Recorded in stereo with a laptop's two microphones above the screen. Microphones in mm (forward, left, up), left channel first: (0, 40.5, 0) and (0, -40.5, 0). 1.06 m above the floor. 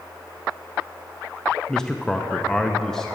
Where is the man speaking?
5° left (ahead or behind), 0.6 m.